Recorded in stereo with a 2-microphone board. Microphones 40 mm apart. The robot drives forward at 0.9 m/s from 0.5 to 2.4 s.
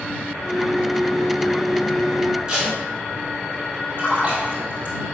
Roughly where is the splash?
Right.